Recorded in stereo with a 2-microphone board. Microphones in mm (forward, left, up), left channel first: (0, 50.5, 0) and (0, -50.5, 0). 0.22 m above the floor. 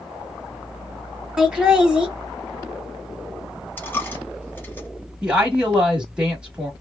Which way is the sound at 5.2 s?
10° right (ahead or behind).